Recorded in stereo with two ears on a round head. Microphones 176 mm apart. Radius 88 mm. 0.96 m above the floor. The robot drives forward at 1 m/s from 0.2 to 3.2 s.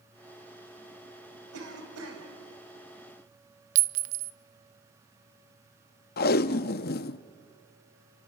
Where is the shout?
I don't hear a shout.